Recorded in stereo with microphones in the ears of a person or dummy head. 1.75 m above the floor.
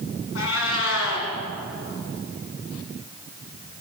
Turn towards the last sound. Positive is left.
turn(degrees=80)